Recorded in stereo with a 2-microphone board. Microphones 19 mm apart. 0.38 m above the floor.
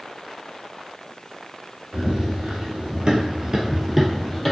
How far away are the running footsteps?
About 1.1 m.